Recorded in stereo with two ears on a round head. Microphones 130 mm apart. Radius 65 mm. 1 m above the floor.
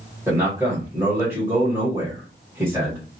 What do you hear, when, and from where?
0.3 s a man speaking: 10° right (ahead or behind), 1.3 m